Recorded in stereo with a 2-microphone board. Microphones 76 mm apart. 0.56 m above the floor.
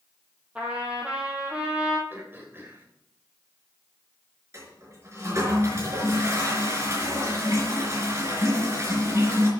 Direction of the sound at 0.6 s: 15° right (ahead or behind).